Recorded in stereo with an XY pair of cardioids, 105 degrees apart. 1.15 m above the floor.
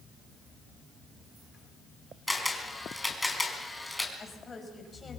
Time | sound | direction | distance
2.3 | a camera shutter | 10° left | 4.5 m
4.2 | a woman speaking | 30° left | 6 m